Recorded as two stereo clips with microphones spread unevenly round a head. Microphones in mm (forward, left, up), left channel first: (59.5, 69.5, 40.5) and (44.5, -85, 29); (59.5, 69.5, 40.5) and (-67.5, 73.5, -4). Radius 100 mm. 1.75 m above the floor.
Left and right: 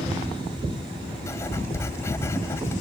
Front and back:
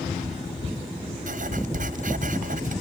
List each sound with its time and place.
1.3 s writing: 160° left